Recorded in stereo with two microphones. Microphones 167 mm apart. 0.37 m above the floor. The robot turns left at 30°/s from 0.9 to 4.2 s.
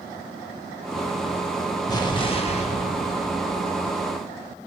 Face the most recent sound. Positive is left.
turn(degrees=85)